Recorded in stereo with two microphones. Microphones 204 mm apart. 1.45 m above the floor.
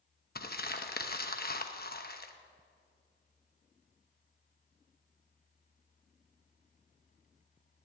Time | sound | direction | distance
0.3 | crumpling | 50° left (ahead or behind) | 1.0 m